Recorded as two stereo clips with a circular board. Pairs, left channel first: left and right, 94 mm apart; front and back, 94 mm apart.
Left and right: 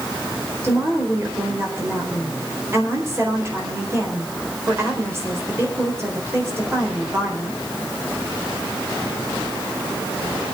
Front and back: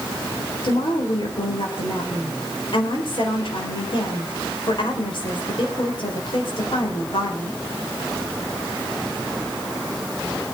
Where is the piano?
I don't hear a piano.